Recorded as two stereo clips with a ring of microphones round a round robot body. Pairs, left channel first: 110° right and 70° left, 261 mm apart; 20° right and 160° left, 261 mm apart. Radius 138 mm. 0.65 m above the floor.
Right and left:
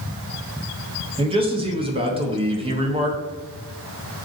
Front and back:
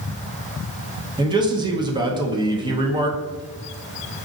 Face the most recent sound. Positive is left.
turn(degrees=105)